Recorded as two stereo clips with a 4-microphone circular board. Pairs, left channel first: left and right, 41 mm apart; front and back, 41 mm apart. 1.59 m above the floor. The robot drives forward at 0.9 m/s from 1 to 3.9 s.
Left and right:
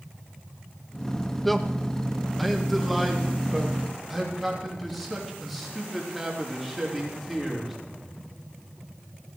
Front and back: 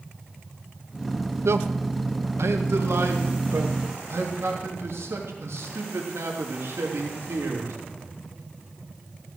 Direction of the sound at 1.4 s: 175° left.